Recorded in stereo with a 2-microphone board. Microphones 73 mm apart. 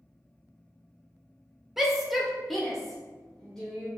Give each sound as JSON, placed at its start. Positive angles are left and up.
{"t": 1.8, "sound": "a shout", "side_deg": -5, "distance_m": 0.8}